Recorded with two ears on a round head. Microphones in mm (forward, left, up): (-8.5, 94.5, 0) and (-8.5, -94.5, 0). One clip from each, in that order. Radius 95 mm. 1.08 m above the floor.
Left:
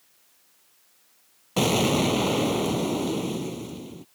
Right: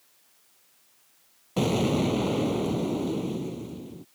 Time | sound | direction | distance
1.6 | an explosion | 35° left (ahead or behind) | ?